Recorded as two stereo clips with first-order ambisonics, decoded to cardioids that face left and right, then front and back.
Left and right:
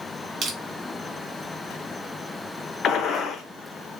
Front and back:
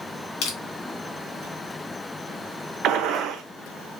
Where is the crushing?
30° right, 1.4 m.